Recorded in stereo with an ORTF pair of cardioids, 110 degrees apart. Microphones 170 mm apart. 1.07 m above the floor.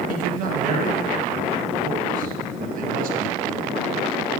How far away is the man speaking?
About 1.1 m.